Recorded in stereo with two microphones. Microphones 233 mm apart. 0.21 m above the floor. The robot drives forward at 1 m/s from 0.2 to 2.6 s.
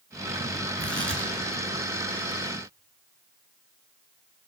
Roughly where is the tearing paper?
Right.